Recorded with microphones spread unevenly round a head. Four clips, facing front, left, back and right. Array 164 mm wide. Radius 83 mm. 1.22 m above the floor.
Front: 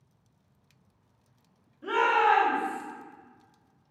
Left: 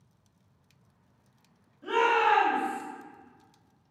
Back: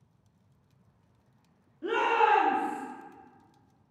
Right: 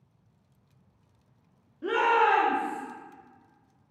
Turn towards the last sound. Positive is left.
turn(degrees=-120)